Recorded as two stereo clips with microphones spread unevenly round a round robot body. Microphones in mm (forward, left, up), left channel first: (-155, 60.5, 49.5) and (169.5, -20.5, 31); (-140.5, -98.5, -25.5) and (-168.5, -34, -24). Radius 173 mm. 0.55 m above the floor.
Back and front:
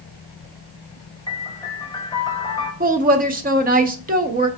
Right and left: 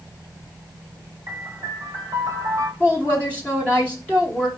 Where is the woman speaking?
15° right, 0.6 m.